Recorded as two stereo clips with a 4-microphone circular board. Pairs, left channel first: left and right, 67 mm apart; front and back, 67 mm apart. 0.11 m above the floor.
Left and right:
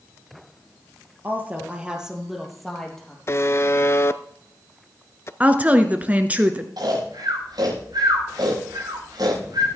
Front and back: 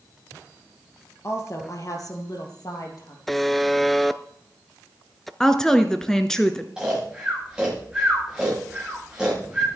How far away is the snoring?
About 7.5 m.